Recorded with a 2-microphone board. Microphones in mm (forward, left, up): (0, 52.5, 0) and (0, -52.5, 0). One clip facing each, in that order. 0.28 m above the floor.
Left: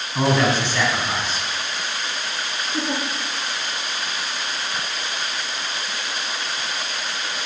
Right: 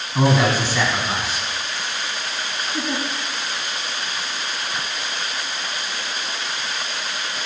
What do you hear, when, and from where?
0.1 s a man speaking: 10° right (ahead or behind), 2 m
2.7 s a giggle: 25° left (ahead or behind), 2.5 m